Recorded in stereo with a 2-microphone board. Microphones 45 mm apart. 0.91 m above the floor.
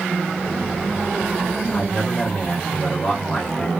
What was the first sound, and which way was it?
A man speaking, 35° left (ahead or behind).